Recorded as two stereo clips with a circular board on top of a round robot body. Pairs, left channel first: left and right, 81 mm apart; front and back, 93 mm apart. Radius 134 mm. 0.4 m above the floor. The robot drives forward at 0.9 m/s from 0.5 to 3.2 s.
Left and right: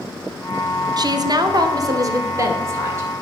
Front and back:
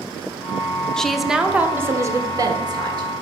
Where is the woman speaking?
80° right, 1.4 m; by 3.1 s 145° right, 2.5 m.